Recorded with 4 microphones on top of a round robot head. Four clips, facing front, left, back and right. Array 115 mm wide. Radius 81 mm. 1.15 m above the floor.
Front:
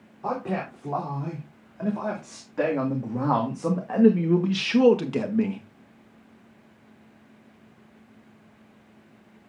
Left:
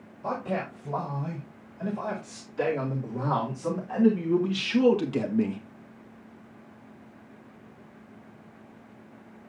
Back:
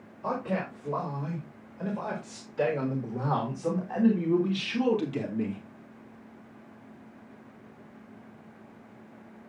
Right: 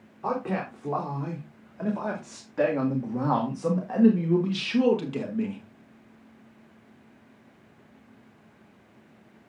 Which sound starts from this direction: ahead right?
A man speaking, at 0.2 s.